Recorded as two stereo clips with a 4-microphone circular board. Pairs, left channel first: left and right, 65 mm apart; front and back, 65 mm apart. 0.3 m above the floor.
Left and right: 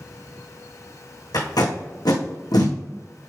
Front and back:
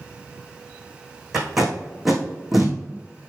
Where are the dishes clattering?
No dishes clattering in this recording.